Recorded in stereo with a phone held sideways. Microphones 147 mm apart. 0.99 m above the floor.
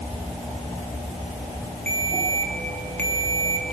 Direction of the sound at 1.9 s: 10° left (ahead or behind).